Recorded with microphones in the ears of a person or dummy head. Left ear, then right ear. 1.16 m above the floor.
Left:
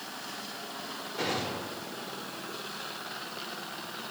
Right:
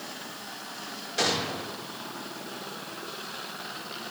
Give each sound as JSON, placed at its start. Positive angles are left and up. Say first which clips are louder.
{"t": 1.2, "sound": "a gunshot", "louder": "right 5 dB", "side_deg": -50, "distance_m": 7.0}